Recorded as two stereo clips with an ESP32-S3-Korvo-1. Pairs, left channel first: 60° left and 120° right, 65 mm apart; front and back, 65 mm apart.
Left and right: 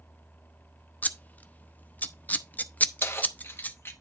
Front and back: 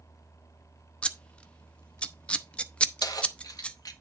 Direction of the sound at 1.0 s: 50° left.